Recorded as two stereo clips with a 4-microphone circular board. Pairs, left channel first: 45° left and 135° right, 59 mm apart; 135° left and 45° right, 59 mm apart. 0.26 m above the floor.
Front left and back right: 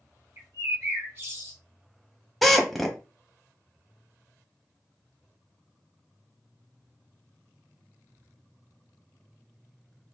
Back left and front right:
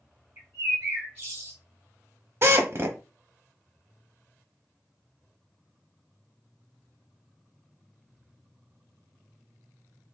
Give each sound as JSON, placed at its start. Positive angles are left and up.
{"t": 0.4, "sound": "a bird", "azimuth_deg": -90, "distance_m": 2.5}
{"t": 2.4, "sound": "a drill", "azimuth_deg": -45, "distance_m": 0.8}